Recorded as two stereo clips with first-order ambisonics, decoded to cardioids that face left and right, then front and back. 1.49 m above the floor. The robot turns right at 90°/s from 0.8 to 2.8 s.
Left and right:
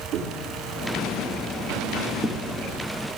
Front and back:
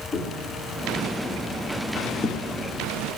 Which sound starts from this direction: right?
Footsteps, at 0.1 s.